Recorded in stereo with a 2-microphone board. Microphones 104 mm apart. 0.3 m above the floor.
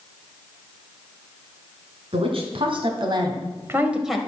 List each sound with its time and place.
2.1 s a woman speaking: 65° right (ahead or behind), 3.5 m; by 4.2 s centre (ahead or behind), 1.6 m